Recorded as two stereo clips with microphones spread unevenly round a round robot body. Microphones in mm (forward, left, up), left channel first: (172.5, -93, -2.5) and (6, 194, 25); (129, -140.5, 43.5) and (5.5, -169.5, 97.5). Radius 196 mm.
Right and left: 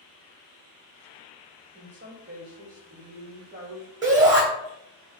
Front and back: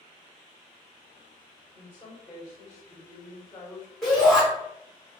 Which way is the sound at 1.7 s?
80° left.